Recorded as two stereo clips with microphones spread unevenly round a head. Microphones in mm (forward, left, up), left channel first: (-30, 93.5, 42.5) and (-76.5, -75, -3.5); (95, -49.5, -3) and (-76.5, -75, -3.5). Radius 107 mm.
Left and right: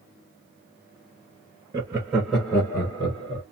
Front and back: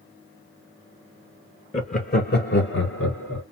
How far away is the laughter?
About 0.7 m.